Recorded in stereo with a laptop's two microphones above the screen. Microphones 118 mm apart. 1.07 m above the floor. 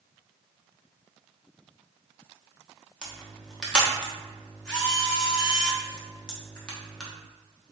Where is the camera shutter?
5° left (ahead or behind), 0.8 m.